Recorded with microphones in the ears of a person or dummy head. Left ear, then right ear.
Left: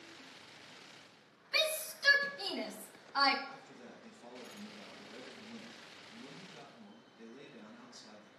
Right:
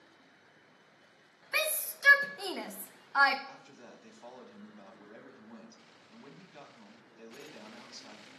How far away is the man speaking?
About 1.6 m.